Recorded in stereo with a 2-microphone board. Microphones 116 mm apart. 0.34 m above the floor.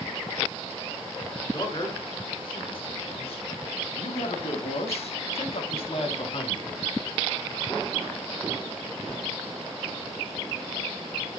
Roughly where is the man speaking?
Left.